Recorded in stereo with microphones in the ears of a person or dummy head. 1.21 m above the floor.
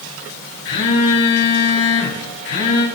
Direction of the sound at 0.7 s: 70° left (ahead or behind).